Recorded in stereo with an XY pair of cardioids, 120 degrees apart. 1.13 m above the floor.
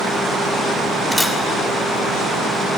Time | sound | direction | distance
1.1 | a camera shutter | straight ahead | 2.5 m